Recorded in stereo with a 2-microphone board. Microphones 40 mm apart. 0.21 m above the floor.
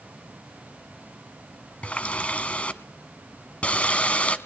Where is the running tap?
35° left (ahead or behind), 1.3 m.